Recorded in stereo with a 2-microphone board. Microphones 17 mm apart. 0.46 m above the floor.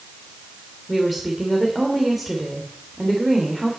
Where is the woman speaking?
5° right (ahead or behind), 1.8 m.